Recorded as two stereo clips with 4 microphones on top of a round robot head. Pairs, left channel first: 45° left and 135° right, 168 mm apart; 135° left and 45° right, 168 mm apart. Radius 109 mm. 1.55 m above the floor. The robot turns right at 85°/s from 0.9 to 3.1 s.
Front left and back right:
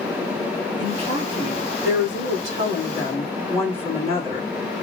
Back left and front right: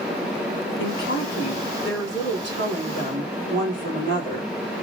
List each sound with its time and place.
0.8 s a woman speaking: 140° left, 3 m; by 4.5 s 30° right, 3 m